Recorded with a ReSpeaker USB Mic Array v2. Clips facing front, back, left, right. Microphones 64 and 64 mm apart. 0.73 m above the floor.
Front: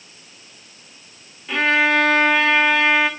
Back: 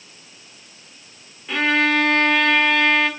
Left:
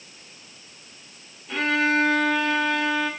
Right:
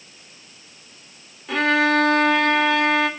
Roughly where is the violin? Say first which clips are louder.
Front 1 dB, right 4 dB; right.